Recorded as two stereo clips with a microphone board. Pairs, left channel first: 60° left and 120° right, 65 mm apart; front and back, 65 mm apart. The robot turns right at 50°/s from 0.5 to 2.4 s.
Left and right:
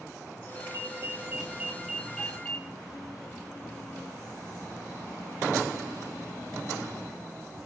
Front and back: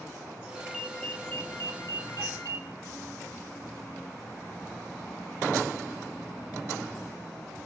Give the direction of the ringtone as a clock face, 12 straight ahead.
3 o'clock.